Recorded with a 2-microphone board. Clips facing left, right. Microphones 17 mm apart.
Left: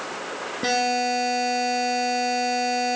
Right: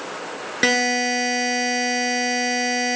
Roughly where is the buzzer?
Right.